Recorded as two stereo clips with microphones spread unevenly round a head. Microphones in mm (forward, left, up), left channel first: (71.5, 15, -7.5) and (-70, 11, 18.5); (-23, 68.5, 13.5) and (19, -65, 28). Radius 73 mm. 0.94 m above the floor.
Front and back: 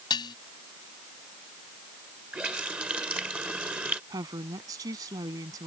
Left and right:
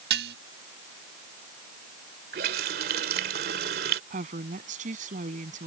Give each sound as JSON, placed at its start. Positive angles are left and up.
{"t": 0.1, "sound": "dishes clattering", "azimuth_deg": -65}
{"t": 2.3, "sound": "a running tap", "azimuth_deg": -95}
{"t": 4.1, "sound": "a woman speaking", "azimuth_deg": -110}